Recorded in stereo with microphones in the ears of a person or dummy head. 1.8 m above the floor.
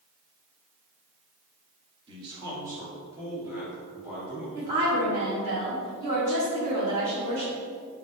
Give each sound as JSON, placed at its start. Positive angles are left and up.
{"t": 2.1, "sound": "a man speaking", "side_deg": -25, "distance_m": 1.1}
{"t": 4.5, "sound": "a woman speaking", "side_deg": -40, "distance_m": 0.9}